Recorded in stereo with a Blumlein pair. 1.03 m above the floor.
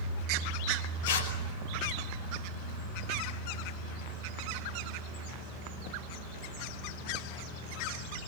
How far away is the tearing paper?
About 5 m.